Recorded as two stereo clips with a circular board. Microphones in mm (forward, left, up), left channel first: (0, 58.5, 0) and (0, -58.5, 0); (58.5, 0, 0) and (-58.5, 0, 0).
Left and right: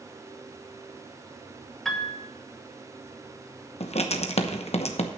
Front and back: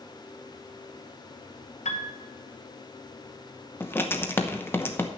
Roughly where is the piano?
Ahead.